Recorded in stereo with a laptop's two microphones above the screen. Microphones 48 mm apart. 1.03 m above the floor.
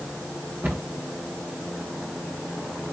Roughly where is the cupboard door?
Right.